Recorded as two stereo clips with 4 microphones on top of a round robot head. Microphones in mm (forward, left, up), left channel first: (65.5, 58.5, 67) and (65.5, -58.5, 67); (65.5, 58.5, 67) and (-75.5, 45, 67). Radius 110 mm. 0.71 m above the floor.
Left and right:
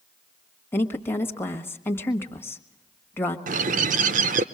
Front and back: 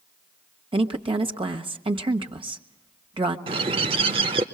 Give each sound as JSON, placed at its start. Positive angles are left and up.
{"t": 0.7, "sound": "a woman speaking", "azimuth_deg": 155, "distance_m": 1.5}
{"t": 3.5, "sound": "a bird", "azimuth_deg": -110, "distance_m": 0.6}